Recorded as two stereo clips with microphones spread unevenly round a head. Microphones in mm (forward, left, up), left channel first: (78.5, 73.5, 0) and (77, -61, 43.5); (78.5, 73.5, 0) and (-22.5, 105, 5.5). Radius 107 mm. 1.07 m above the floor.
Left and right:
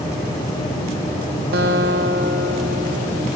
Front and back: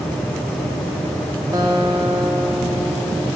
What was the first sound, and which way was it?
A guitar, 125° right.